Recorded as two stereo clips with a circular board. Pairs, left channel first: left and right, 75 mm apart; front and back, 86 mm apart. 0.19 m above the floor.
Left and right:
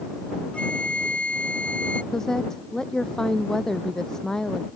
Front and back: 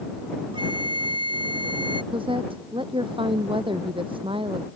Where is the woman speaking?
175° left.